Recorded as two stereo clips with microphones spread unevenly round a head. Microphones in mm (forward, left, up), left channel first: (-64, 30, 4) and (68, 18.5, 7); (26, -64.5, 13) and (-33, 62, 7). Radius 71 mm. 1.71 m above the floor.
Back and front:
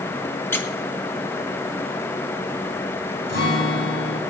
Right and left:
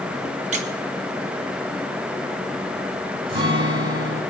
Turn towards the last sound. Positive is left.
turn(degrees=165)